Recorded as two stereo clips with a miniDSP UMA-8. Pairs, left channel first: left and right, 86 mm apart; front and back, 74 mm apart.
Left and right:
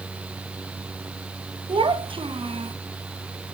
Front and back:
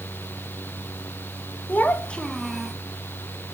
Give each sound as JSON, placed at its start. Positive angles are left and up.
{"t": 1.7, "sound": "a child speaking", "azimuth_deg": -70, "distance_m": 1.4}